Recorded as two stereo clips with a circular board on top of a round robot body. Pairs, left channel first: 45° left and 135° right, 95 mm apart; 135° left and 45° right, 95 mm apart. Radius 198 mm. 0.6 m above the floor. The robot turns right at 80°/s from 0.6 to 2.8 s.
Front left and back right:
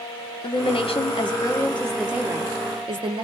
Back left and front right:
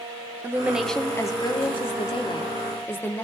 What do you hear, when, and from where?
0.4 s a woman speaking: 25° left, 2.0 m; by 3.2 s 160° right, 2.0 m